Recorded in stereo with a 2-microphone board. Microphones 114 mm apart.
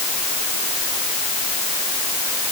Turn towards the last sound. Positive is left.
No sound to turn to.